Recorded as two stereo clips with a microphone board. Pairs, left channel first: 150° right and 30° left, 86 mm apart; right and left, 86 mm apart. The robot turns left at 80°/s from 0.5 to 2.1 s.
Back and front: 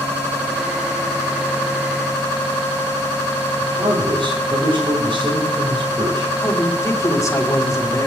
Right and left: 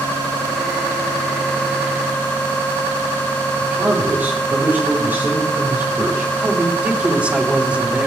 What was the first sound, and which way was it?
A man speaking, 25° left.